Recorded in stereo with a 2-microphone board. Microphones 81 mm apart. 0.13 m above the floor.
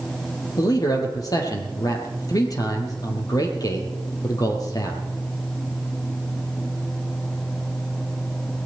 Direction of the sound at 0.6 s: 50° left (ahead or behind).